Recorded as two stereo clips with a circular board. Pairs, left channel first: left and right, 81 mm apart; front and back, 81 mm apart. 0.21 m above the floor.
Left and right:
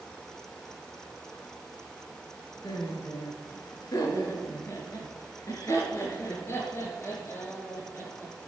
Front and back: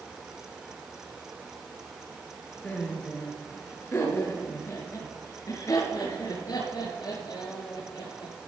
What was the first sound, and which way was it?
Laughter, 75° left.